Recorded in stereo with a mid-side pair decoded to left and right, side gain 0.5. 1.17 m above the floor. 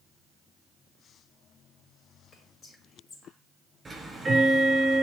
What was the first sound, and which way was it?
Whispering, 45° left.